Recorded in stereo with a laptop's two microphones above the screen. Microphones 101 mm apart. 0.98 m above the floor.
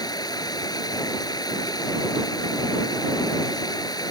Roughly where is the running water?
Left.